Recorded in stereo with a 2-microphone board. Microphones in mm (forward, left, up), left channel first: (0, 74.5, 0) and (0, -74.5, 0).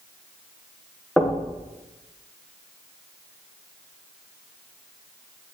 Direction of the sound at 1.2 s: 5° left (ahead or behind).